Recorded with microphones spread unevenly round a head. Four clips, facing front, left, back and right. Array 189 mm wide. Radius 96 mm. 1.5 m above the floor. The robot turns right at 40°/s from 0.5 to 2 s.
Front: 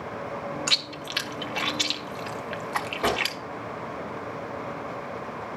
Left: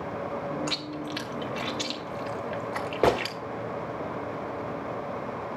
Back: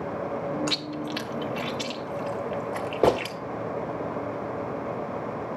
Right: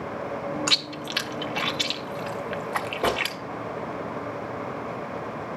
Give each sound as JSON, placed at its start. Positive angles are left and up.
{"t": 0.7, "sound": "chewing", "azimuth_deg": -80, "distance_m": 1.2}
{"t": 3.0, "sound": "a gunshot", "azimuth_deg": 160, "distance_m": 1.2}